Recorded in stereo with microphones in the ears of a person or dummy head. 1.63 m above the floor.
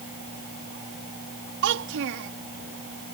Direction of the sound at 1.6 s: 70° right (ahead or behind).